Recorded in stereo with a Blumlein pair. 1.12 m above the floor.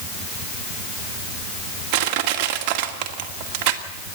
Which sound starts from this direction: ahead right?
Crushing, at 1.9 s.